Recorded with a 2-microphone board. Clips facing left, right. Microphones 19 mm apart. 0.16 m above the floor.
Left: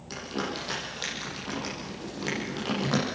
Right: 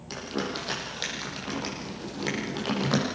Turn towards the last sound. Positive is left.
turn(degrees=-15)  # may be behind; listen again after turning